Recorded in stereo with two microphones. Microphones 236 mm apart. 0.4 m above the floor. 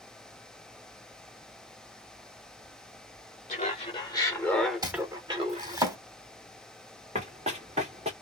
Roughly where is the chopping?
Centre.